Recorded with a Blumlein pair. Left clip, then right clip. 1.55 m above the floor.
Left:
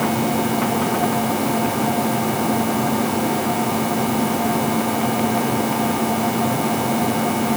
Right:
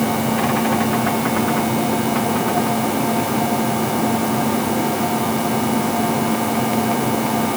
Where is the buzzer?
No buzzer in this recording.